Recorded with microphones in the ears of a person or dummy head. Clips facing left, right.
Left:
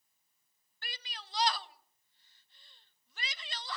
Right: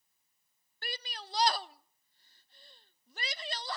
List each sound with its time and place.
0.8 s a shout: 35° right (ahead or behind), 0.6 m